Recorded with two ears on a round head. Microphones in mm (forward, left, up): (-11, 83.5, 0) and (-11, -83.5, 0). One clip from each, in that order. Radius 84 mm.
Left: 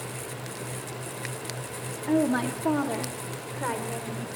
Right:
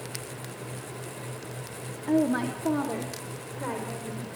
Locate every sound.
2.1 s a woman speaking: 10° left (ahead or behind), 1.6 m; by 4.3 s 35° left (ahead or behind), 5 m